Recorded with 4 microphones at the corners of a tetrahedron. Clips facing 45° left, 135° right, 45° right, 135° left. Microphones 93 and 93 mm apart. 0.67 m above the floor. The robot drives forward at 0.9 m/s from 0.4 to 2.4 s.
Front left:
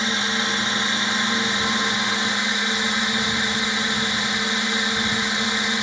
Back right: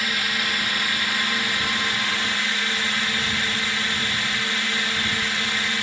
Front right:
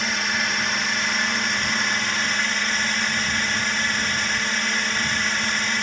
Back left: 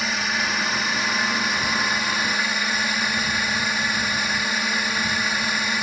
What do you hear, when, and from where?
0.0 s a drone: 50° left; by 5.8 s 65° left